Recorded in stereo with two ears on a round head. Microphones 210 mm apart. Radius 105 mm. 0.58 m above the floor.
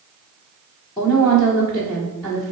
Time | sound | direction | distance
1.0 | a woman speaking | 15° left (ahead or behind) | 1.3 m